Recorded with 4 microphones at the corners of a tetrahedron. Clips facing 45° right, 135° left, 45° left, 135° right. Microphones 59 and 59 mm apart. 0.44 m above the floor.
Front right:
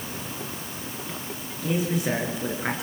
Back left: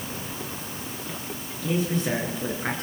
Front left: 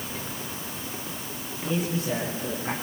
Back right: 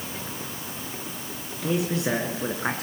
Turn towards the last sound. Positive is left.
turn(degrees=-130)